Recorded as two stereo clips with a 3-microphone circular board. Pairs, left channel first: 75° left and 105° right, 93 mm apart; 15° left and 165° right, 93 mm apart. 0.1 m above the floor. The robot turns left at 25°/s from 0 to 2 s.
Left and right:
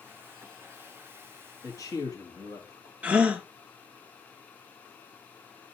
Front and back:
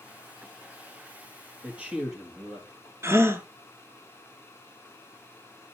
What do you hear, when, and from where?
1.6 s a man speaking: 125° left, 2.5 m; by 2.9 s 115° left, 2.5 m
3.0 s a gasp: 160° right, 0.7 m